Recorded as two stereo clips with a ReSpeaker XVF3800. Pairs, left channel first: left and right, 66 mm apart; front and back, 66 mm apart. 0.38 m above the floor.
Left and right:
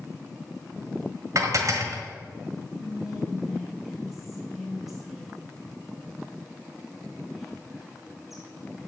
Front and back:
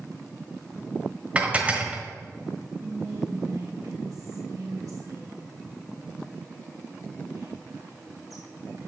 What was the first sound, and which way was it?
Dishes clattering, 115° right.